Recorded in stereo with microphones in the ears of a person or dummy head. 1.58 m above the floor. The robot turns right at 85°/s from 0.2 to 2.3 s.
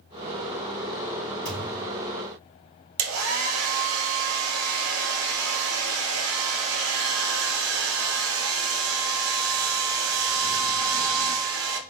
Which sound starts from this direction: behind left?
A thud, at 1.4 s.